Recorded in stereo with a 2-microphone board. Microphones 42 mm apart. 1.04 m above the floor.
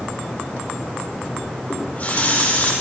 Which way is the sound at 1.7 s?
50° left (ahead or behind).